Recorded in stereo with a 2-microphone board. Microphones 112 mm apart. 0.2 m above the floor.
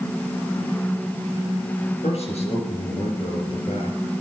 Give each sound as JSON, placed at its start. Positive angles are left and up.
{"t": 2.0, "sound": "a man speaking", "side_deg": 65, "distance_m": 3.5}